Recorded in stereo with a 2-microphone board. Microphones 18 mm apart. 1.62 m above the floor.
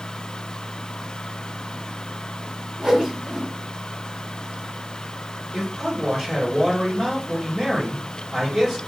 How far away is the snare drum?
I don't hear a snare drum.